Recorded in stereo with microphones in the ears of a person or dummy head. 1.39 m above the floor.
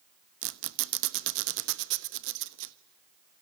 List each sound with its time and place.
0.4 s a squeak: 70° right (ahead or behind), 1.1 m